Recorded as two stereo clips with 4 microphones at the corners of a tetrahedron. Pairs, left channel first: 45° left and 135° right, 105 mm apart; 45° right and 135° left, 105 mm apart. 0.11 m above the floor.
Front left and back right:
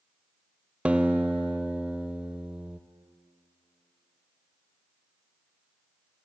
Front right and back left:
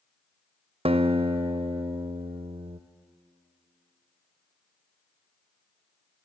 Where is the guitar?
145° left, 0.5 m.